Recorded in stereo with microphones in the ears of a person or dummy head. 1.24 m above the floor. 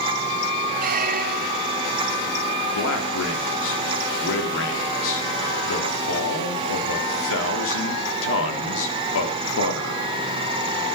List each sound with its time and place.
0.8 s a squeak: 40° right (ahead or behind), 0.6 m
2.7 s a man speaking: 70° left (ahead or behind), 3.5 m